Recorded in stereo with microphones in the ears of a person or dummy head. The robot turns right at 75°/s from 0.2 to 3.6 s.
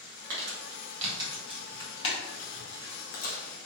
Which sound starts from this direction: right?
Crumpling, at 0.3 s.